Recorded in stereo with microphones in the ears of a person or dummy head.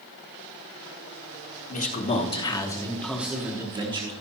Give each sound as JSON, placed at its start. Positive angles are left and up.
{"t": 1.7, "sound": "a man speaking", "side_deg": 45, "distance_m": 1.4}